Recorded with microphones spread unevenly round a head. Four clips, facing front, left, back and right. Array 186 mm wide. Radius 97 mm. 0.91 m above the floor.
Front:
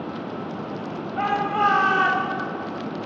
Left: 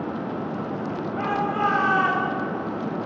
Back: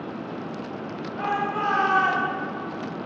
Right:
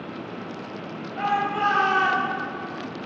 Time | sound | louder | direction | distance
1.2 | a shout | right 1 dB, front 4 dB | 5° right | 5.5 m